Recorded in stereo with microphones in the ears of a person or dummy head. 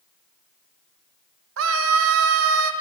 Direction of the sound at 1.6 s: 70° right (ahead or behind).